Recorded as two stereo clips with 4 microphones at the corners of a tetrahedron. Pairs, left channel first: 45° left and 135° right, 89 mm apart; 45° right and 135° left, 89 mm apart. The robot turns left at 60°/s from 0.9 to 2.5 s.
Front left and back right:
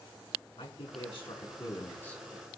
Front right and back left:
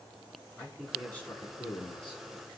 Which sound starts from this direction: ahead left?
A man speaking, at 0.6 s.